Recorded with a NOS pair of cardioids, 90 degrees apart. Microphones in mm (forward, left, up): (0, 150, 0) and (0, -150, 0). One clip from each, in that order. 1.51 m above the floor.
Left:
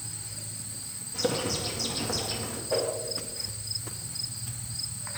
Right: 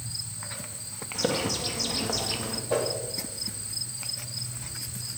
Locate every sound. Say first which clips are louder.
1.1 s a bird: right 1 dB; 20° right, 2.5 m
2.7 s a whoosh: right 1 dB; 35° right, 4 m